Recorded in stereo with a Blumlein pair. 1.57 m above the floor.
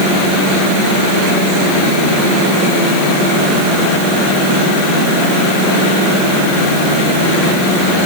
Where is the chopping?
I don't hear chopping.